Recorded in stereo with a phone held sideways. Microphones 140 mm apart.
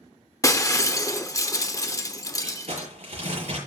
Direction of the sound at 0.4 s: 25° left (ahead or behind).